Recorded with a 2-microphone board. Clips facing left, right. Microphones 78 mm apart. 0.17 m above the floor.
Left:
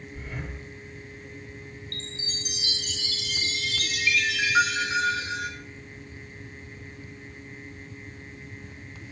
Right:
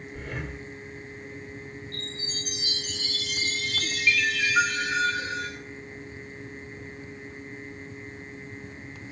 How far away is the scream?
I don't hear a scream.